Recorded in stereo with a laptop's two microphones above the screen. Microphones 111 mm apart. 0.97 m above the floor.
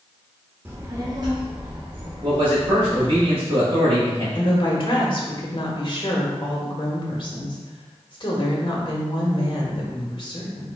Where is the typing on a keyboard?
I don't hear typing on a keyboard.